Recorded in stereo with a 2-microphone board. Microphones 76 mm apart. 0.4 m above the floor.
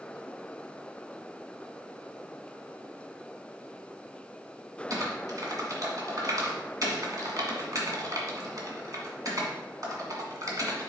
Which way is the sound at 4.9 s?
50° right (ahead or behind).